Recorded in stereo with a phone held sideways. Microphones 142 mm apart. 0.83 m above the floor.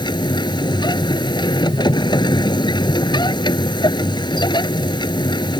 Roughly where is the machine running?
Left.